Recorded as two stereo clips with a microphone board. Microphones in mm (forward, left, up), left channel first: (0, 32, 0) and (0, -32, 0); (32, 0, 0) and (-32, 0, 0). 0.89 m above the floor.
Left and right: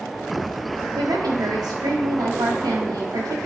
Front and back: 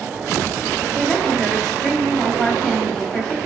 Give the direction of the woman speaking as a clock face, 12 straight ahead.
3 o'clock.